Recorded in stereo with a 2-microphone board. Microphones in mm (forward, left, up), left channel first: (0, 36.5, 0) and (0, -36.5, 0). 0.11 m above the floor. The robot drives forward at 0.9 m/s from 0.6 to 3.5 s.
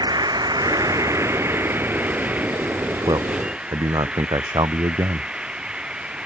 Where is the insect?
70° right (ahead or behind); by 6.3 s 15° right (ahead or behind).